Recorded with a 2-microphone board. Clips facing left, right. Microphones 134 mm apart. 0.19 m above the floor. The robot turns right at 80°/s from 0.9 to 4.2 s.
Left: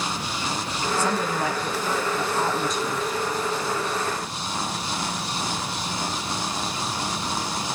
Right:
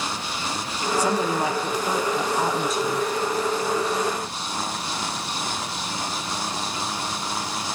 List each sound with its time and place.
1.0 s a woman speaking: 10° right (ahead or behind), 1.0 m; by 3.1 s 10° left (ahead or behind), 1.0 m